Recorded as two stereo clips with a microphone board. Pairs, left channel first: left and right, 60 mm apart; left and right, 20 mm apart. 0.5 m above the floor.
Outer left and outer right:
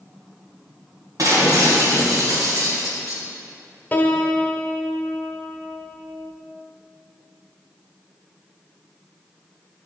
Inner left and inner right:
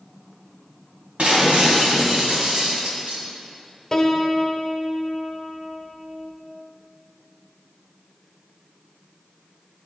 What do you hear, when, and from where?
1.2 s breaking glass: 75° right (ahead or behind), 2.5 m
3.9 s a piano: 25° left (ahead or behind), 0.9 m